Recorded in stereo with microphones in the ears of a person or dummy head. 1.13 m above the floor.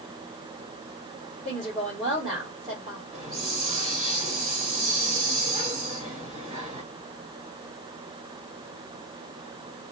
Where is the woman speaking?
15° right (ahead or behind), 1.4 m.